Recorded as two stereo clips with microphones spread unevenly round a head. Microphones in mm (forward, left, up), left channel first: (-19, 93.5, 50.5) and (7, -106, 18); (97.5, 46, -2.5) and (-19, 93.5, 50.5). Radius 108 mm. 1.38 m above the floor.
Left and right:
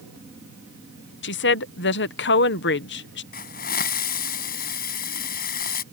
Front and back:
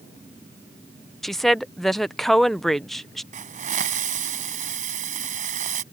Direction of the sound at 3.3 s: 145° left.